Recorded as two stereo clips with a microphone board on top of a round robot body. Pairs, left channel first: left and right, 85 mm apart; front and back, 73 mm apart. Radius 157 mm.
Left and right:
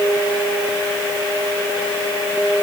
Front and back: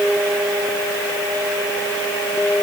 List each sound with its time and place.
Only background noise.